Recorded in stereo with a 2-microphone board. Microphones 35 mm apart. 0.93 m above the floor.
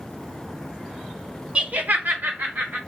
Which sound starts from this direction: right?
Laughter, at 1.6 s.